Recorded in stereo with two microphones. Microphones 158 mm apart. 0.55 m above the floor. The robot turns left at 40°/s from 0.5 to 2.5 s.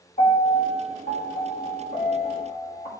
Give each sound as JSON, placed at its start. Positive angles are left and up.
{"t": 0.2, "sound": "a piano", "azimuth_deg": 115, "distance_m": 3.0}